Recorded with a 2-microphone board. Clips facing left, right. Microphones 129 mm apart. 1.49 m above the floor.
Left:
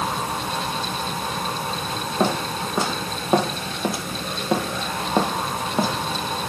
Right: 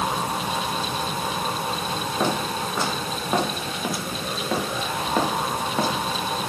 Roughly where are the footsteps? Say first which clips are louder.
Left 3 dB; left.